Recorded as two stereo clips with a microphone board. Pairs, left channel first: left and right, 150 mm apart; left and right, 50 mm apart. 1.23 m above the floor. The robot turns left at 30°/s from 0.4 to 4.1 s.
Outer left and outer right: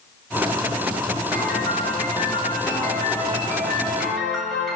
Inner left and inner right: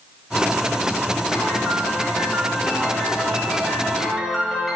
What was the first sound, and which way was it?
A piano, 30° left (ahead or behind).